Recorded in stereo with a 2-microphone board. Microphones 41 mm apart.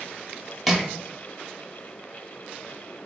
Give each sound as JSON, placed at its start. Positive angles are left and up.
{"t": 0.7, "sound": "crushing", "side_deg": 5, "distance_m": 0.5}